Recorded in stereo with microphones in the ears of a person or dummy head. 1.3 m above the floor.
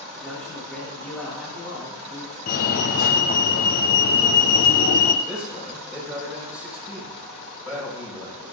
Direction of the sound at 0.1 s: Centre (ahead or behind).